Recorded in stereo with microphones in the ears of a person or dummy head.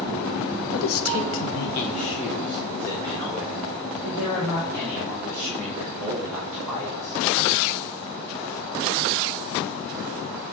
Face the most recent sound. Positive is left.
turn(degrees=-20)  # may be behind; listen again after turning